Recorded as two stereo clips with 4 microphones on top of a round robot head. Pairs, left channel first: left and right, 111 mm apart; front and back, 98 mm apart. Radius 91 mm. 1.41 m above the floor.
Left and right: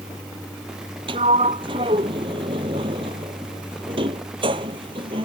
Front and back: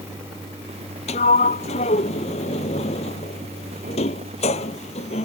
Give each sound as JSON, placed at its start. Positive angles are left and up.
{"t": 1.1, "sound": "a sliding door", "azimuth_deg": -35}